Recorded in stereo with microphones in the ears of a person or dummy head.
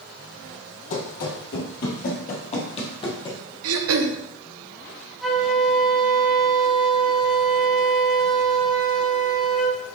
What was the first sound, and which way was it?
Running footsteps, 50° left (ahead or behind).